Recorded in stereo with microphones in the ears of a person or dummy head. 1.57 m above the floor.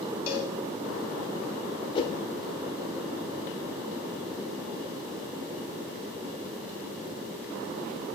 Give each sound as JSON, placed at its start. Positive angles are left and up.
{"t": 0.3, "sound": "a cowbell", "side_deg": 35, "distance_m": 3.0}
{"t": 1.9, "sound": "a whoosh", "side_deg": 25, "distance_m": 0.9}